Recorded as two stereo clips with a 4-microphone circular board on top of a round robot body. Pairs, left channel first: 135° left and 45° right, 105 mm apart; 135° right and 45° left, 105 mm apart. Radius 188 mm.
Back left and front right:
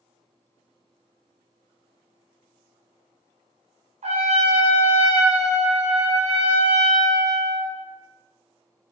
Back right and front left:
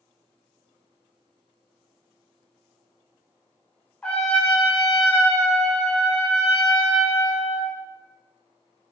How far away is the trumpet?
About 1.1 m.